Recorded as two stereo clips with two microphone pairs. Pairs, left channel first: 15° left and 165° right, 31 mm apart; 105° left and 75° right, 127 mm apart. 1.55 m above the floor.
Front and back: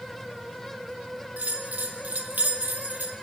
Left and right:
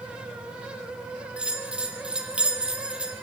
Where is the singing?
No singing in this recording.